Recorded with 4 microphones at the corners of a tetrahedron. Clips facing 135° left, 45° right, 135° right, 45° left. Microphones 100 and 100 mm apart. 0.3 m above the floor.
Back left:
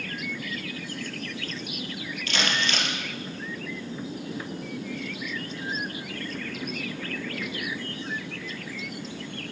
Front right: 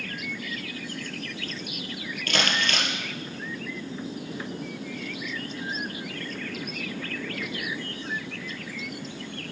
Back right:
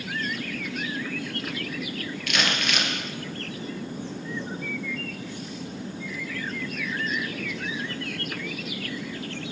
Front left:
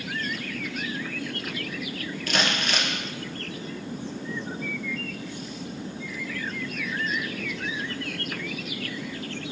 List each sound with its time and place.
2.3 s crumpling: 10° right, 1.6 m